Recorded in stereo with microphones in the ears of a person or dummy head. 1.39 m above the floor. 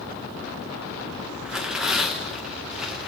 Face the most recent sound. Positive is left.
turn(degrees=0)  # may be behind; listen again after turning